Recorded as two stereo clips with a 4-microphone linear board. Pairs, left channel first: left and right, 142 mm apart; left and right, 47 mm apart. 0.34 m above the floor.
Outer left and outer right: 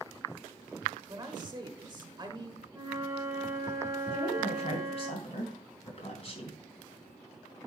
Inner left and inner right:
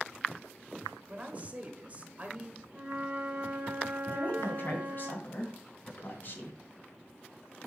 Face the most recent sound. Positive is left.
turn(degrees=45)  # may be behind; listen again after turning